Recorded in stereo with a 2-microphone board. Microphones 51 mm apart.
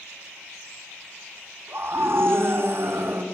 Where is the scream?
45° right (ahead or behind), 2 m.